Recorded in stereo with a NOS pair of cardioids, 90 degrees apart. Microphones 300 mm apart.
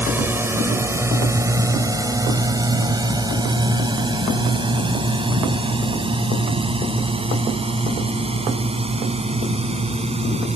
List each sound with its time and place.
0.0 s a drone: 5° right; by 10.6 s 20° right